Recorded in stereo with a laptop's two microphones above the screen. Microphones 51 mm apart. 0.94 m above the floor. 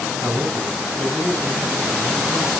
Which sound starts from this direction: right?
A man speaking, at 0.2 s.